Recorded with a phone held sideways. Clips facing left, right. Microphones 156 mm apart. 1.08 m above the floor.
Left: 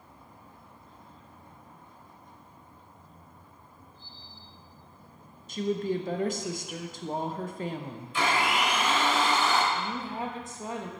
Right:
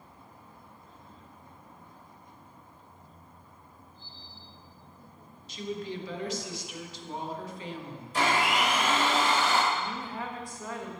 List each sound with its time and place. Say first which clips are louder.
5.5 s a woman speaking: left 7 dB; 50° left (ahead or behind), 0.6 m
8.1 s a blender: right 1 dB; 40° right (ahead or behind), 1.7 m
9.7 s a woman speaking: left 1 dB; 20° left (ahead or behind), 0.9 m